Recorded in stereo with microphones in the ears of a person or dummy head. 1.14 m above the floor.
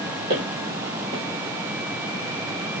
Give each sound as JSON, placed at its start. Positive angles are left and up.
{"t": 0.3, "sound": "footsteps", "side_deg": -60, "distance_m": 2.0}